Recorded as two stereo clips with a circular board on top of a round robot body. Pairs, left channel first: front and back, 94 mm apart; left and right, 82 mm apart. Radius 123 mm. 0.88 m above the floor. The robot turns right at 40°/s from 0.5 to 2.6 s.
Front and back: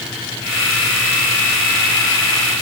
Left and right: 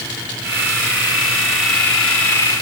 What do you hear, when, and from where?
Only background noise.